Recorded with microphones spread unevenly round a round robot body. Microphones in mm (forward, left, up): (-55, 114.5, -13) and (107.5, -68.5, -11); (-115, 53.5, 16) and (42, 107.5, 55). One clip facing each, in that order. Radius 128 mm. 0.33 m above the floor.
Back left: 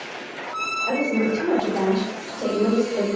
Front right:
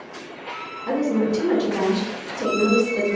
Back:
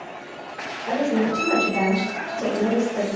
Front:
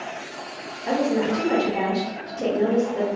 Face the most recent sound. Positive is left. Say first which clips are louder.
# front right 1 dB, even
turn(degrees=-25)